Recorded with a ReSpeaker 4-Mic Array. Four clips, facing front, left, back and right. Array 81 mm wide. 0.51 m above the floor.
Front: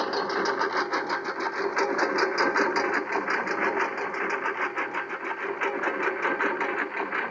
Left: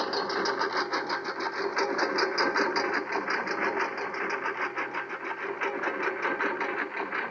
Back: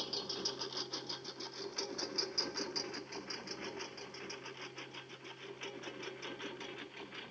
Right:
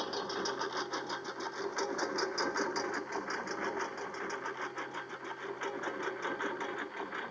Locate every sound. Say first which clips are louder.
0.0 s a lawn mower: left 8 dB, front 18 dB; 30° left; by 7.3 s 25° left